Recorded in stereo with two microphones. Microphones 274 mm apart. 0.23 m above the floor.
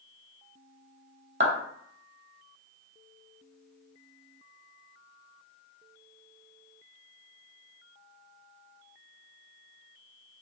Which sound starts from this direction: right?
A clap, at 1.4 s.